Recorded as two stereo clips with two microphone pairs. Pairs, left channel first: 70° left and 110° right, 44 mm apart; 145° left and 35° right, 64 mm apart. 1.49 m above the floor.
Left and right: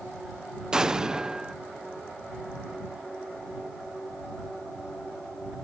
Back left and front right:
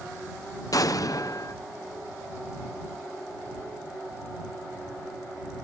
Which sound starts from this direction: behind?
An explosion, at 0.7 s.